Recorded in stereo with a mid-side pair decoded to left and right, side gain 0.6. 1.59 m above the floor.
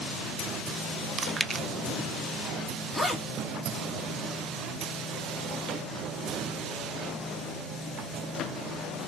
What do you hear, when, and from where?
1.2 s chewing: 20° right, 0.6 m
2.9 s a zipper: 5° left, 2.5 m